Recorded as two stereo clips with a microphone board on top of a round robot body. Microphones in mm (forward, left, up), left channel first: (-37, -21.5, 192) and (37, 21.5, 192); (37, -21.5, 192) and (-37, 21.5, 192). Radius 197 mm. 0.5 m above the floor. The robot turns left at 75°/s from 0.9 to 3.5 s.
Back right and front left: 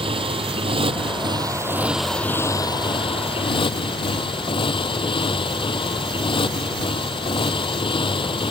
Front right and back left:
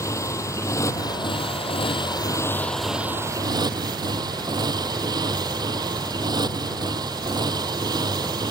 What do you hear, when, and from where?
0.0 s a motorcycle: 25° left; by 8.5 s 170° right